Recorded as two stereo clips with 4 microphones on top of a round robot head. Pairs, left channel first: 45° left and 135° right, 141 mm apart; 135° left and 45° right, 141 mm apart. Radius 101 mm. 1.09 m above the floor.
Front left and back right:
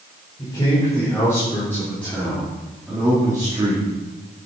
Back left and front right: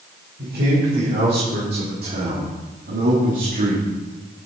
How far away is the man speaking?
About 5.5 m.